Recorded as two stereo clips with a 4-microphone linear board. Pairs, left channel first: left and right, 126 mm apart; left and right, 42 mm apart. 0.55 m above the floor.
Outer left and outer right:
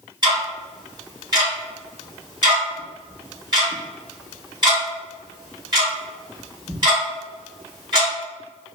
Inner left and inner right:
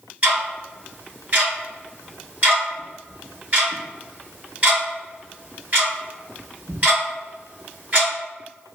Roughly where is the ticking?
Right.